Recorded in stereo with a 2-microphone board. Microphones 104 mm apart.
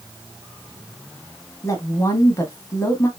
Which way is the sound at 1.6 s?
30° left (ahead or behind).